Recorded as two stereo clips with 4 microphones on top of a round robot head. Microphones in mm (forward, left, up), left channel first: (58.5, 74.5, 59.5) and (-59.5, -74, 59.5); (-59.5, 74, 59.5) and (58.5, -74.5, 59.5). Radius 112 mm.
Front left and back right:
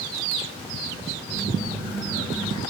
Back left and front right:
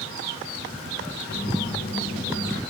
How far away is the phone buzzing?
About 0.8 m.